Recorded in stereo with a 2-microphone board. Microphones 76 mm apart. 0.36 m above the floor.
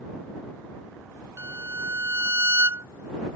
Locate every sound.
1.4 s a violin: 35° right (ahead or behind)